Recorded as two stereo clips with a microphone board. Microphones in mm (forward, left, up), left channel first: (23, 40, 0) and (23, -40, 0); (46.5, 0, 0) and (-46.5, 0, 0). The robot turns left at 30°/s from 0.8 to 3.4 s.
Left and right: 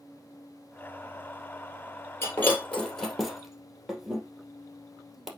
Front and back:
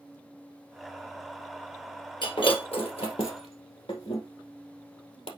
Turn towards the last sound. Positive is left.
turn(degrees=-5)